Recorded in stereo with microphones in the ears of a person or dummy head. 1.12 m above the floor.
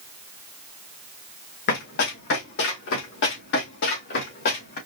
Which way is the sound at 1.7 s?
60° left (ahead or behind).